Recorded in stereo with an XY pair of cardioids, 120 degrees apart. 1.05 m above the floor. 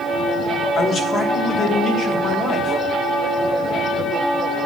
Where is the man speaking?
50° left, 3 m.